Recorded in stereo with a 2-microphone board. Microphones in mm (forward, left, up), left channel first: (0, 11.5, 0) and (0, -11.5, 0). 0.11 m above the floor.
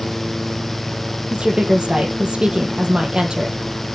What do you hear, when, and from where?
1.3 s a woman speaking: 40° right (ahead or behind), 3 m